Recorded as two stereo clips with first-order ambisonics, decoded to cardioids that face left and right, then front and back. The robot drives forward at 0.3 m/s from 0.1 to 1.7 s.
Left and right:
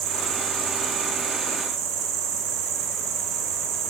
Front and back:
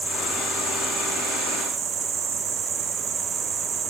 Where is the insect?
90° right, 1.0 m; by 3.9 s 115° right, 1.1 m.